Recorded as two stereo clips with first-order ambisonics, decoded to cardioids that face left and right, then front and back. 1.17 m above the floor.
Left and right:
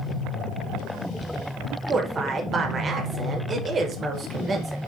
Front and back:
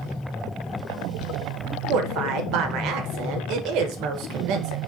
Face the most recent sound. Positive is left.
turn(degrees=-155)